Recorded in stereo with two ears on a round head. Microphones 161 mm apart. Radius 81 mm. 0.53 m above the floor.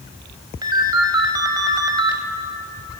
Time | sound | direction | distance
0.6 | a ringtone | 25° right (ahead or behind) | 1.1 m